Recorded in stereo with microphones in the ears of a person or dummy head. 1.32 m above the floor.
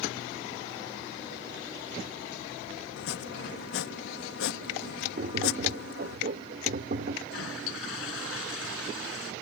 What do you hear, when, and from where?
3.0 s chopping: 70° left (ahead or behind)
5.2 s tapping: 45° right (ahead or behind)
7.3 s a toilet flushing: 85° left